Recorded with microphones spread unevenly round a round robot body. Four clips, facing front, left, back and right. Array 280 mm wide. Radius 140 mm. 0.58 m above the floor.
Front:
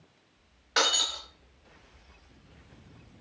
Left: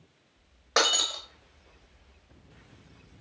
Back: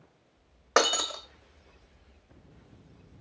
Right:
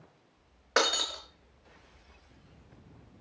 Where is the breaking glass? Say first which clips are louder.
Left 1 dB, back 4 dB; 175° right, 0.8 m.